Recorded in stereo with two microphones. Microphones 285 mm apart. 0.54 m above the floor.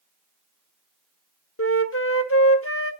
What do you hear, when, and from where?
1.6 s a flute: 50° left (ahead or behind), 1.0 m